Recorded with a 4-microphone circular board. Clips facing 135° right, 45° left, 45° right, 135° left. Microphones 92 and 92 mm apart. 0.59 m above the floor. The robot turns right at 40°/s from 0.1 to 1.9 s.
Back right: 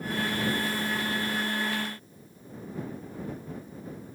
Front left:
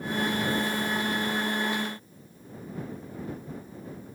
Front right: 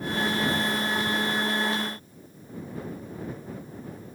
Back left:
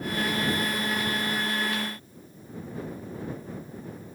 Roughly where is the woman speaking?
I don't hear a woman speaking.